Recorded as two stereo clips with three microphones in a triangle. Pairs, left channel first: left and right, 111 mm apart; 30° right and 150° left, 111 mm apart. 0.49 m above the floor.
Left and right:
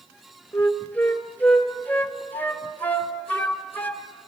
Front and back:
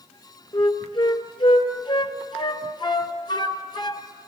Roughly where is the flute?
Ahead.